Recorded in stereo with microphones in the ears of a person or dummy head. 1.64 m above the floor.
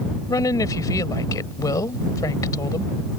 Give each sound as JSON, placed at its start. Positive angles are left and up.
{"t": 0.3, "sound": "a woman speaking", "side_deg": 20}